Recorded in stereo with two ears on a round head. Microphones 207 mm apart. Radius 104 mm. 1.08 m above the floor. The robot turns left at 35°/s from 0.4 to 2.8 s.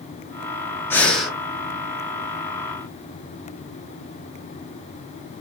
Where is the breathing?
10° left (ahead or behind), 1.0 m; by 1.4 s 5° right (ahead or behind), 1.0 m.